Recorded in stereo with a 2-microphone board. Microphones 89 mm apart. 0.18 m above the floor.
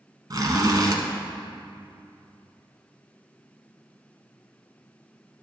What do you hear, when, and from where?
0.3 s a zipper: 45° right (ahead or behind), 1.0 m